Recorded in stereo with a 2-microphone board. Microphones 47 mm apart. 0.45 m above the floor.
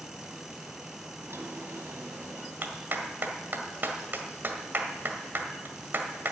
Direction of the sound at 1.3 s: 55° right (ahead or behind).